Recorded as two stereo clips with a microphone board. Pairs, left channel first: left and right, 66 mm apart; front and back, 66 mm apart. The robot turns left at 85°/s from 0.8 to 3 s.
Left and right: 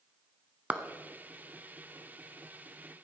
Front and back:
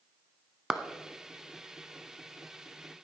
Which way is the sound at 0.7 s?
115° right.